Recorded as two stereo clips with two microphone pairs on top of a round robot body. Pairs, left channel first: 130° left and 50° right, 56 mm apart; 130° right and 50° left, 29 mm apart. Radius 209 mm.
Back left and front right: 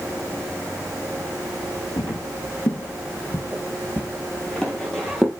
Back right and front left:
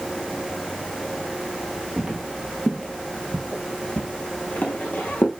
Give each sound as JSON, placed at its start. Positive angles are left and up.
{"t": 2.0, "sound": "footsteps", "azimuth_deg": 120, "distance_m": 1.6}